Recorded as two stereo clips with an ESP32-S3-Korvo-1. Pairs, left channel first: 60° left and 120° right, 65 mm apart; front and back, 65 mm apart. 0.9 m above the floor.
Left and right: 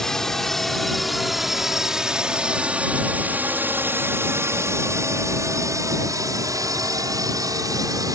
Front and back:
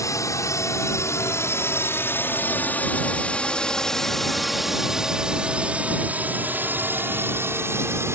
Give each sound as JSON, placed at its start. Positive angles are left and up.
{"t": 0.0, "sound": "a drone", "azimuth_deg": -25}